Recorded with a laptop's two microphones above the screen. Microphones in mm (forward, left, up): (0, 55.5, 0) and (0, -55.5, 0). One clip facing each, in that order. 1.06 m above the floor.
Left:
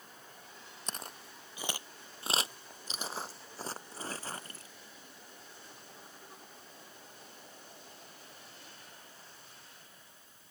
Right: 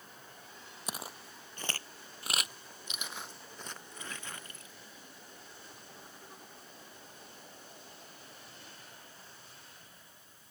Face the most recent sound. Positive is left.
turn(degrees=35)  # may be behind; listen again after turning